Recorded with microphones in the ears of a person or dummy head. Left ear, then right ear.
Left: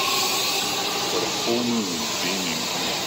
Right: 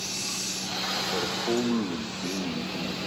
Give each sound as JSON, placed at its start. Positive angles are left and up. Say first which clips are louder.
{"t": 1.1, "sound": "a man speaking", "louder": "left 4 dB", "side_deg": 70, "distance_m": 2.5}